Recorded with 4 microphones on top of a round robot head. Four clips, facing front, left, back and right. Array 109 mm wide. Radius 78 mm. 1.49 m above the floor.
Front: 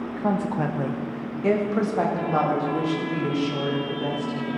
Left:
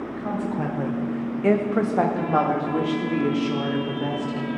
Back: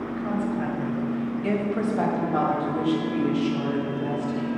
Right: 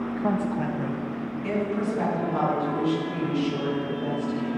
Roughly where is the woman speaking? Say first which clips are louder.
Right 1 dB, front 3 dB; ahead right.